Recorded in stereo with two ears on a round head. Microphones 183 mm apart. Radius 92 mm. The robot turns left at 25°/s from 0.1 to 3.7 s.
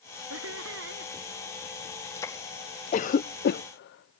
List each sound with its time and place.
0.3 s laughter: 80° right; by 1.1 s 60° right (ahead or behind)
2.9 s a cough: 35° left (ahead or behind); by 4.2 s 55° left (ahead or behind)